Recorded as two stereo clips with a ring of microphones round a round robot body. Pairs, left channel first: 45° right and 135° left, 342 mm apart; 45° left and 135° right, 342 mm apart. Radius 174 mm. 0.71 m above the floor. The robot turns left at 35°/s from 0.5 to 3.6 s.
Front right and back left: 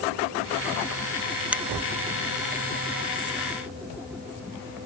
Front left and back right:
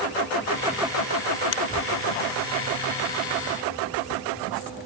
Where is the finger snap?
50° left.